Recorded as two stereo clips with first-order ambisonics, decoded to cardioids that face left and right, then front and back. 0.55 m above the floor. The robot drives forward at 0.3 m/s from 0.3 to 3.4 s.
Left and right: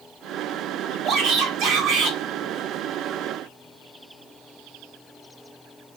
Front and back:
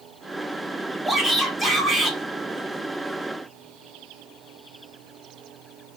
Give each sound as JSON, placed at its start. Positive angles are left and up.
{"t": 1.1, "sound": "a shout", "azimuth_deg": -95, "distance_m": 1.5}